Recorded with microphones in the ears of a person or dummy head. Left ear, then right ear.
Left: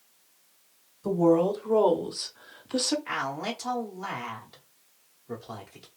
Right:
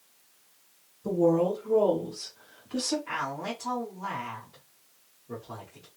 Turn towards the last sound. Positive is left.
turn(degrees=65)  # may be behind; listen again after turning